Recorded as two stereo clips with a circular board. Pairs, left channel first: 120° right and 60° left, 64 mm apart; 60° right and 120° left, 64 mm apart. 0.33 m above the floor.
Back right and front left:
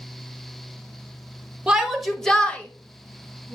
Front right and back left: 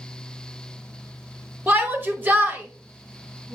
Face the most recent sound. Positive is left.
turn(degrees=-175)